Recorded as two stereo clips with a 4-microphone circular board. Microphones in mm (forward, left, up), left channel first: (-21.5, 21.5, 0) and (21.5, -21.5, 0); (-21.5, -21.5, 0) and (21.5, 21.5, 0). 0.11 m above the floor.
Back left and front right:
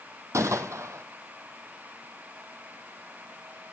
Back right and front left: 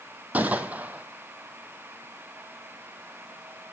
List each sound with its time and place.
0.3 s a gunshot: 15° right, 0.9 m